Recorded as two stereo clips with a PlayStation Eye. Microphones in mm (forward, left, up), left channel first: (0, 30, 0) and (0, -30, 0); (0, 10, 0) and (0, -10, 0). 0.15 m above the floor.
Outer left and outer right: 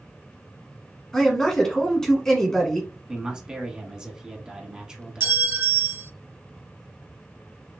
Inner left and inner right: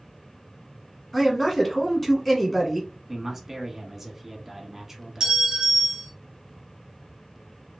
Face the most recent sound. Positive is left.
turn(degrees=-35)  # may be behind; listen again after turning